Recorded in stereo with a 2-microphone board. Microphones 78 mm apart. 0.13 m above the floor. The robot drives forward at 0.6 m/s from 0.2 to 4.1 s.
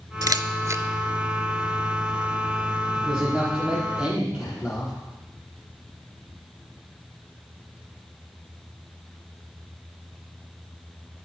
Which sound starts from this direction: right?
A camera shutter, at 0.2 s.